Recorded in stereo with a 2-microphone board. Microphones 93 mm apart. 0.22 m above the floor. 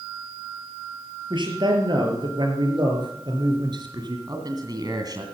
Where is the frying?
I don't hear frying.